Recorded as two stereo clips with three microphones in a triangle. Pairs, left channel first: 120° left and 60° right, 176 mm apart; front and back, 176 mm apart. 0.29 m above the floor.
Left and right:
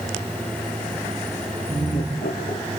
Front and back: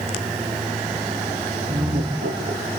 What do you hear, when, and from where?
1.7 s laughter: 160° left, 5.5 m